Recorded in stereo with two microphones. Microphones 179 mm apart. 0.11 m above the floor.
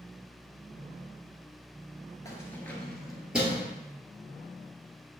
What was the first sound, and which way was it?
Keys jangling, 20° left (ahead or behind).